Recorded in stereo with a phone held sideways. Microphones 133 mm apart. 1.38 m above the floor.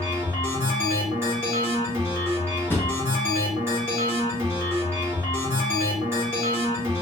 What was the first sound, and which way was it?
A machine running, 20° right (ahead or behind).